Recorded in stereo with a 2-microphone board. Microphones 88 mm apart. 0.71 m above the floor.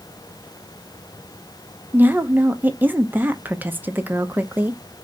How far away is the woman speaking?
About 0.7 m.